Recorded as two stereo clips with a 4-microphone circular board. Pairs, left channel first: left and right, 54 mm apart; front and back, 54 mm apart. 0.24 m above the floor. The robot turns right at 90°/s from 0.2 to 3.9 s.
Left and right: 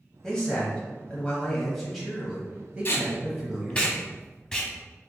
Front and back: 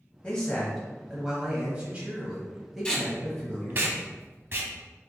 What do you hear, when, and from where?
0.2 s a man speaking: 30° left, 1.0 m; by 3.9 s 5° right, 1.0 m
2.9 s tape being pulled: 65° left, 0.7 m; by 4.7 s 160° left, 0.7 m